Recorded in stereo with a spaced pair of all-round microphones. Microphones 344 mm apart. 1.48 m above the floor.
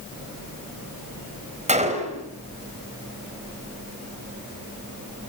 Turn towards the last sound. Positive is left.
turn(degrees=-20)  # may be behind; listen again after turning